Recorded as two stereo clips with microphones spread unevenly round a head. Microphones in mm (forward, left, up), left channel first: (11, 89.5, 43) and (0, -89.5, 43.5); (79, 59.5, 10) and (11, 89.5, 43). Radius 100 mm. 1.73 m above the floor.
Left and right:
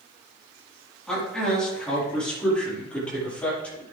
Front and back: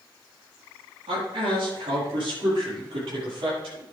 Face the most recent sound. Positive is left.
turn(degrees=170)